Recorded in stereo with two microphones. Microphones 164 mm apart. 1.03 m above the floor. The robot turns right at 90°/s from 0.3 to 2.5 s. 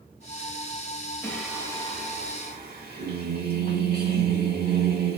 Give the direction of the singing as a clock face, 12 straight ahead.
6 o'clock.